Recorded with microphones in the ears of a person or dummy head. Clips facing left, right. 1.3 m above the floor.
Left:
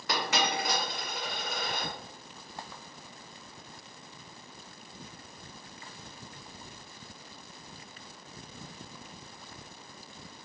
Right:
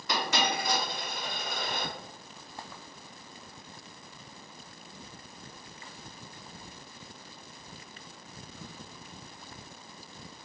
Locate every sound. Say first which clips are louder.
0.1 s a dropped coin: even; 55° left (ahead or behind), 1.7 m